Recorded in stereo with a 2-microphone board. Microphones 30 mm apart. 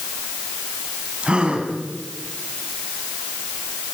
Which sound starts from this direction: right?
A gasp, at 1.2 s.